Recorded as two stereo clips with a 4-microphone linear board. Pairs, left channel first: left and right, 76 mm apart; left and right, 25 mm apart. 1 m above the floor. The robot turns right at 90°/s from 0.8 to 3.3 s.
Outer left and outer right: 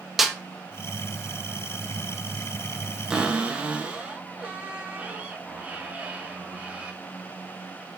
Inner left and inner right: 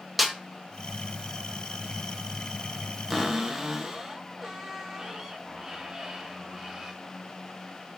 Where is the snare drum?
5° right (ahead or behind), 0.6 m.